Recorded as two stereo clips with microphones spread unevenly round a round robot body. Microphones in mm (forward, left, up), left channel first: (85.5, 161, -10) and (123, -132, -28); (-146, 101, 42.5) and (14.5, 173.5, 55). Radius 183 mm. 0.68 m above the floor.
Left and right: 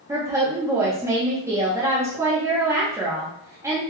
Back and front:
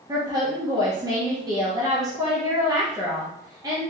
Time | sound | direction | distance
0.1 | a woman speaking | 25° right | 0.7 m